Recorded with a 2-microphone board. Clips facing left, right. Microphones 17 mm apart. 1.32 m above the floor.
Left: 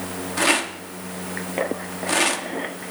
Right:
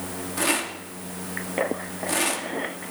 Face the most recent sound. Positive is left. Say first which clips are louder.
# left 5 dB
turn(degrees=25)  # may be behind; listen again after turning